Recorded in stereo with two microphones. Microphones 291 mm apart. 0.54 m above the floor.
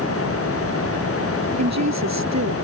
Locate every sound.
1.6 s a woman speaking: 65° right (ahead or behind)